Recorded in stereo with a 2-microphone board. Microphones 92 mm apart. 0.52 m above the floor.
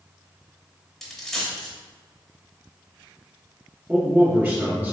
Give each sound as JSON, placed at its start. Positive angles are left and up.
{"t": 1.0, "sound": "a dropped coin", "side_deg": 5, "distance_m": 0.9}
{"t": 3.9, "sound": "a man speaking", "side_deg": -20, "distance_m": 1.3}